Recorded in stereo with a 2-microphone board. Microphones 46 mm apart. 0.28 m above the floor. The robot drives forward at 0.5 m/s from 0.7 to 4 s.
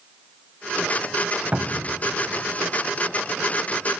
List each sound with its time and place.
1.5 s a cupboard door: 30° right (ahead or behind), 0.6 m; by 2.0 s 35° right (ahead or behind), 0.5 m